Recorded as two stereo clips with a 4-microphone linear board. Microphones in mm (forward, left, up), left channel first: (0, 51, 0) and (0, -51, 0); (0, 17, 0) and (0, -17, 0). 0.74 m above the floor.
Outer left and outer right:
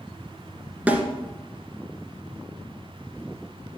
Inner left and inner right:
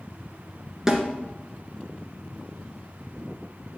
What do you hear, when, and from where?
0.9 s a snare drum: 15° right (ahead or behind), 1.8 m